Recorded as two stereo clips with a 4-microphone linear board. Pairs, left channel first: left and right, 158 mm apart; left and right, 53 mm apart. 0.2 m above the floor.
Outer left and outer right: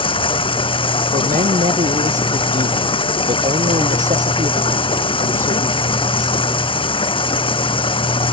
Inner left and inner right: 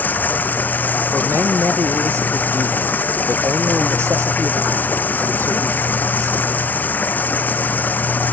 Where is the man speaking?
50° right (ahead or behind).